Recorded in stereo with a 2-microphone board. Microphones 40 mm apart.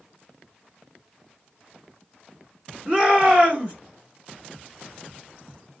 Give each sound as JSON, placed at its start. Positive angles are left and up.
{"t": 2.9, "sound": "a shout", "side_deg": -30, "distance_m": 1.5}